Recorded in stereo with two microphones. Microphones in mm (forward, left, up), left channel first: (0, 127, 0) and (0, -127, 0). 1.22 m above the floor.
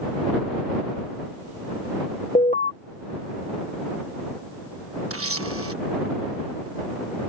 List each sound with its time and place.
2.4 s an alarm: 30° left (ahead or behind)
5.1 s a camera shutter: 60° right (ahead or behind)